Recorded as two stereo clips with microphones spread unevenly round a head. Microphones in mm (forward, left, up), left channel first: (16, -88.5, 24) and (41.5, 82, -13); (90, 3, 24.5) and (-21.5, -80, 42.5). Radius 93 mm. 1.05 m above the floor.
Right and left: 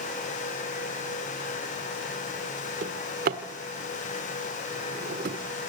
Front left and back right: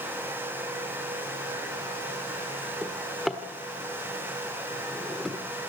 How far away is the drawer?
About 1.3 m.